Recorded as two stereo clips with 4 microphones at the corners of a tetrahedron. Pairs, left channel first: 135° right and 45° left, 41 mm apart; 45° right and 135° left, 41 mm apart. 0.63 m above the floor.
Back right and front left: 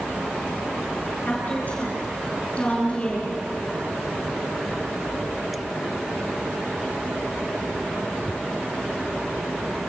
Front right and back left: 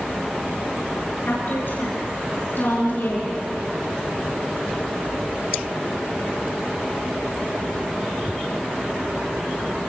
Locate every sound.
1.2 s a woman speaking: 80° right, 9.5 m; by 3.4 s 75° right, 8.5 m